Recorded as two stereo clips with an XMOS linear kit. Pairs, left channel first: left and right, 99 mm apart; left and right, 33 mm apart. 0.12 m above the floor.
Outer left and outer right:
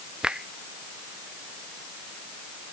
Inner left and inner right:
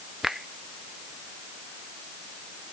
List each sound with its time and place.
0.2 s a finger snap: 10° right (ahead or behind)